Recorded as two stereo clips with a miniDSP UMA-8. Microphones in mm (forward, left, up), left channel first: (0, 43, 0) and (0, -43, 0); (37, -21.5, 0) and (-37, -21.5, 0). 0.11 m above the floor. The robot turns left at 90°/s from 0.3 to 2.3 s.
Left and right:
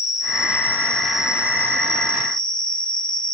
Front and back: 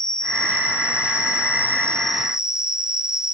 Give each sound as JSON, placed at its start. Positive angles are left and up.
{"t": 0.0, "sound": "an insect", "azimuth_deg": 75, "distance_m": 1.3}